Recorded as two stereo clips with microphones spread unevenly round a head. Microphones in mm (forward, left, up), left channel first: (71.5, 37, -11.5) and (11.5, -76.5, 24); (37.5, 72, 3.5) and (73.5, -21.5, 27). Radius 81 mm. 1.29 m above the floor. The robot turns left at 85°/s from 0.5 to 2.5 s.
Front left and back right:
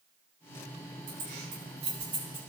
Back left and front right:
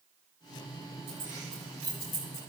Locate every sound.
1.1 s keys jangling: 110° right, 6.5 m; by 2.4 s 135° left, 6.5 m